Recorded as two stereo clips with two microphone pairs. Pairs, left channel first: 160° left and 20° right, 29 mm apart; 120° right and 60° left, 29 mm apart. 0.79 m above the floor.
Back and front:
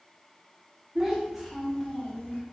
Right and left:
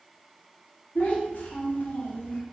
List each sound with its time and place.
0.9 s a child speaking: 95° right, 1.0 m; by 2.4 s 160° right, 0.8 m